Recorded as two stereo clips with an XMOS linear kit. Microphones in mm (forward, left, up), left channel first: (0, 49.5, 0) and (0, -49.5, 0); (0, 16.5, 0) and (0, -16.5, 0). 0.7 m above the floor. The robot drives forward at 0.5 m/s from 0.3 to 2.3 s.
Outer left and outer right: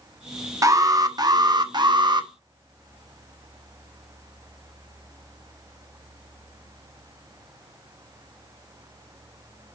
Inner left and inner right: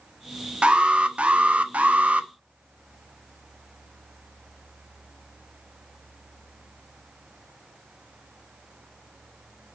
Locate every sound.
0.6 s an alarm: 35° right (ahead or behind), 1.1 m; by 2.3 s 45° right (ahead or behind), 0.8 m